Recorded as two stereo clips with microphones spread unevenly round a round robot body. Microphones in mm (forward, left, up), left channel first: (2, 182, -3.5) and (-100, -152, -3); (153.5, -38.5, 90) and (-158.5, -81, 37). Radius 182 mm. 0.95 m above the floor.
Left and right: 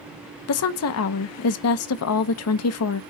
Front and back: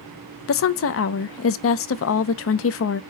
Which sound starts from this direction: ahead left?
A woman speaking, at 0.5 s.